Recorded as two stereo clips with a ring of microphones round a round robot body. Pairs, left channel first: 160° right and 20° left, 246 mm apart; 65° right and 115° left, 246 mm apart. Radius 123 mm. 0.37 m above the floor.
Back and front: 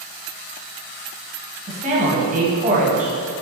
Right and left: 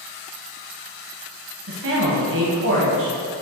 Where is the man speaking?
80° left, 1.9 m.